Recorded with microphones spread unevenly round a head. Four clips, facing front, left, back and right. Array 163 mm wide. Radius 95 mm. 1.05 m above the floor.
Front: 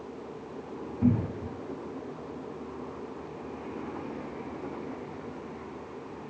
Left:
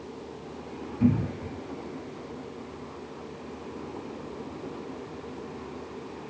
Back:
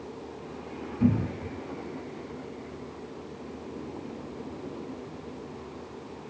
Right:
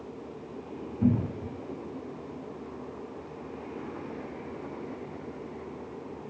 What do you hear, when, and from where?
1.0 s a cupboard door: 130° left, 2.0 m